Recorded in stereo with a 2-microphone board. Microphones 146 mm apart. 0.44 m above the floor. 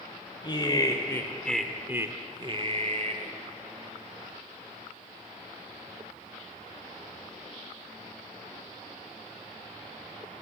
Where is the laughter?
35° left (ahead or behind), 2.5 m; by 3.3 s 55° right (ahead or behind), 2.5 m.